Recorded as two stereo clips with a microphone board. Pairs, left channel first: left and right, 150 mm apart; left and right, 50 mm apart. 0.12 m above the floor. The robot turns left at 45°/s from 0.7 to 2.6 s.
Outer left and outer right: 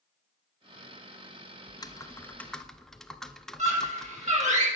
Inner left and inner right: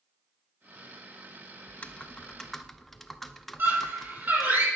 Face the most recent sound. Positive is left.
turn(degrees=-50)  # may be behind; listen again after turning